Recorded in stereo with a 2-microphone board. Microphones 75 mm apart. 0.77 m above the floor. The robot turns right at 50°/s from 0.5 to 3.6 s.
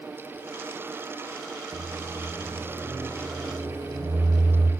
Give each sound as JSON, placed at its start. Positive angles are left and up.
{"t": 1.7, "sound": "a microwave", "azimuth_deg": 150, "distance_m": 3.5}